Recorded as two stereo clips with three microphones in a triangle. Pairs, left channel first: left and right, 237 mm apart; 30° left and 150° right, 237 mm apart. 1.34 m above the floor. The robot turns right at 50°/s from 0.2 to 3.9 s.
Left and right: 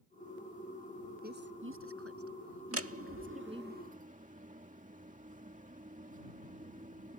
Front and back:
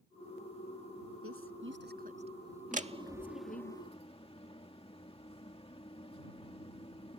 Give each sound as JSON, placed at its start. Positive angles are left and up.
{"t": 1.2, "sound": "a woman speaking", "azimuth_deg": -140}
{"t": 2.7, "sound": "a door slam", "azimuth_deg": -95}